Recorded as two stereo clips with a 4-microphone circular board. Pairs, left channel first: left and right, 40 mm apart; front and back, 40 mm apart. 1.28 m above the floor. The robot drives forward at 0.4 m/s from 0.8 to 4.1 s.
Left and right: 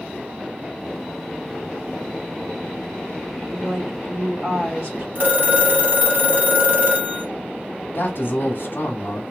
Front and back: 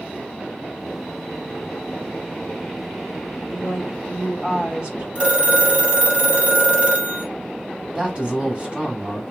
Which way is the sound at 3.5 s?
130° right.